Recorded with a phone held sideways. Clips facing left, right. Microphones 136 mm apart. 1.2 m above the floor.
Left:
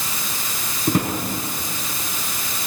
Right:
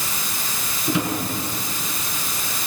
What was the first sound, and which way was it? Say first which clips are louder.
A drawer: left 2 dB; 45° left (ahead or behind).